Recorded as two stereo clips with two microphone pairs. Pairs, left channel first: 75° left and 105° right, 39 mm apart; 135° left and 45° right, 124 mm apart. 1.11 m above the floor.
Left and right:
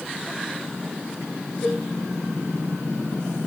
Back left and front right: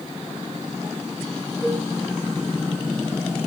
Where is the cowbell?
35° left, 1.9 m.